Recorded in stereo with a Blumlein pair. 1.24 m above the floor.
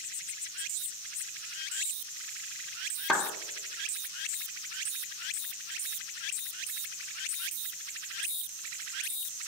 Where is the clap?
5° right, 1.1 m.